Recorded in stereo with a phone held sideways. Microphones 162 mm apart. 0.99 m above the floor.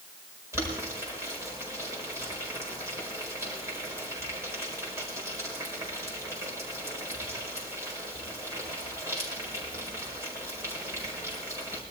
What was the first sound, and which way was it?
Boiling, 15° right (ahead or behind).